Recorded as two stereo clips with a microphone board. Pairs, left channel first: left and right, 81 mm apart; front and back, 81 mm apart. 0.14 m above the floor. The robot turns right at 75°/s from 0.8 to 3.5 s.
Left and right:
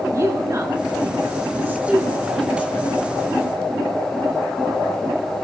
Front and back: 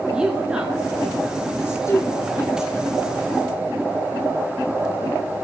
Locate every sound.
0.1 s a woman speaking: 105° right, 1.5 m; by 3.0 s 60° left, 1.5 m